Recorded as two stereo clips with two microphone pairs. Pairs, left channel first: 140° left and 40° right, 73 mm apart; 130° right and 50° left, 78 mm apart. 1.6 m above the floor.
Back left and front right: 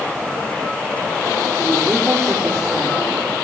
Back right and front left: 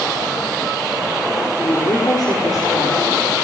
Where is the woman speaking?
95° right, 5.5 m.